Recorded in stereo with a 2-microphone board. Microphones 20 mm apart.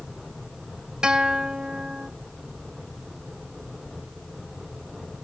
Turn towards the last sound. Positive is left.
turn(degrees=-45)  # may be behind; listen again after turning